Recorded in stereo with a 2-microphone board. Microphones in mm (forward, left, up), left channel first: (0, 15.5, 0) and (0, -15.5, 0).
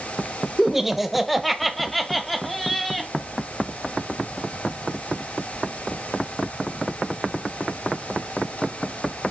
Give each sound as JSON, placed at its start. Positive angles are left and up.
{"t": 0.6, "sound": "laughter", "side_deg": -15, "distance_m": 1.0}